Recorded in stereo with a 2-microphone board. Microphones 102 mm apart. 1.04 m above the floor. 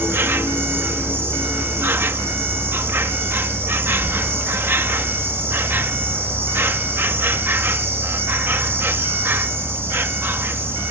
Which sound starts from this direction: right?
An insect, at 0.0 s.